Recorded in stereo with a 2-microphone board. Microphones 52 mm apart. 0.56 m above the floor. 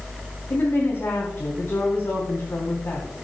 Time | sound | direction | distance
0.5 | a woman speaking | 50° left (ahead or behind) | 3.5 m